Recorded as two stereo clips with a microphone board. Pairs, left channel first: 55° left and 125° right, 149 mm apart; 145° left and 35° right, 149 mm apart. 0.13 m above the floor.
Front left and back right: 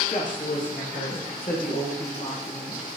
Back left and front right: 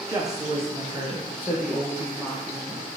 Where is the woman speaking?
30° left, 4.5 m; by 2.9 s 50° left, 5.5 m.